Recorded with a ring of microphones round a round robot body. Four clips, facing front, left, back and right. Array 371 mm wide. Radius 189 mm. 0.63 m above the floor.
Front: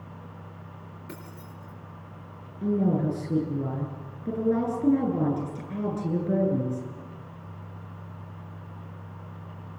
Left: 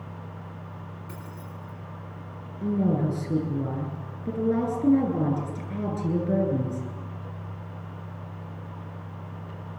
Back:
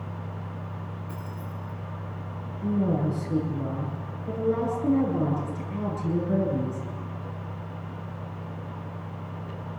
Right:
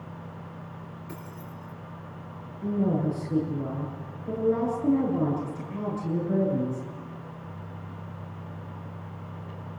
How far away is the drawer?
I don't hear a drawer.